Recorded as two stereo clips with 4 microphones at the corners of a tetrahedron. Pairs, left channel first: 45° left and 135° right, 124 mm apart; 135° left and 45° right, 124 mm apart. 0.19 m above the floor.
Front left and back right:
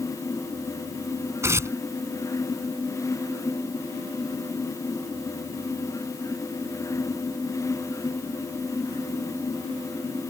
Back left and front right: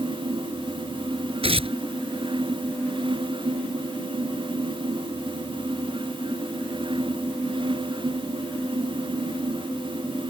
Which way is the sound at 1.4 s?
70° right.